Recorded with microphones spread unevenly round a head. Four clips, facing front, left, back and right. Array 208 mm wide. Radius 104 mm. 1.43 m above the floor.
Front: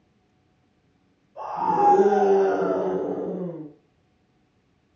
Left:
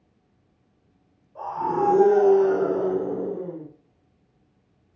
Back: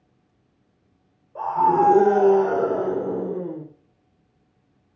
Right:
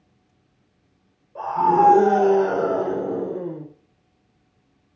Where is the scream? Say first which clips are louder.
Right 7 dB, back 4 dB; 140° right, 7.5 m; by 3.6 s 150° right, 7 m.